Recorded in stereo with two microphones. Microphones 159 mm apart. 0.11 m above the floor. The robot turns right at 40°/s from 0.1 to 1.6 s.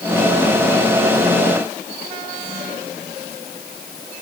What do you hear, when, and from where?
Only background noise.